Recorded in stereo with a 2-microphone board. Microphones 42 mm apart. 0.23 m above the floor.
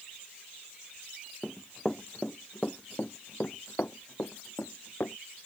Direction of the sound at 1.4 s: Centre (ahead or behind).